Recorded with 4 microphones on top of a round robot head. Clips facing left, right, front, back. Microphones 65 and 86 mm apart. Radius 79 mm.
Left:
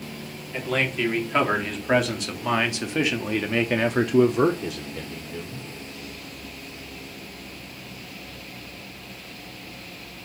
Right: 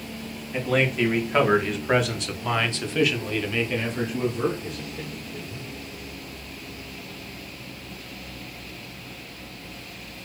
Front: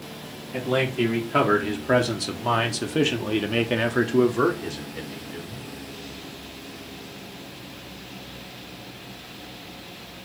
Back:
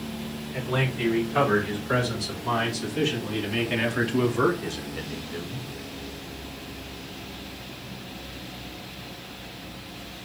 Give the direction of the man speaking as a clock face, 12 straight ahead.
12 o'clock.